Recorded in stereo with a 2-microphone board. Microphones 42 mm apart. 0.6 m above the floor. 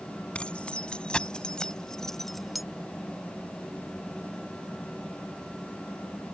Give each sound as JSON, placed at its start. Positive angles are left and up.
{"t": 0.3, "sound": "keys jangling", "side_deg": 25}